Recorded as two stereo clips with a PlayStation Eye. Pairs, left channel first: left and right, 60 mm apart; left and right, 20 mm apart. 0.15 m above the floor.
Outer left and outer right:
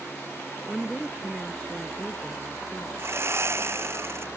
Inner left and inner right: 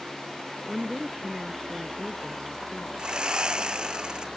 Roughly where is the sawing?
Right.